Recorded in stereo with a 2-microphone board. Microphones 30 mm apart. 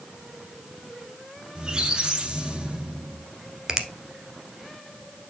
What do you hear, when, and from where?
1.6 s a squeak: 25° right (ahead or behind), 2 m
3.7 s a finger snap: 20° right (ahead or behind), 1.2 m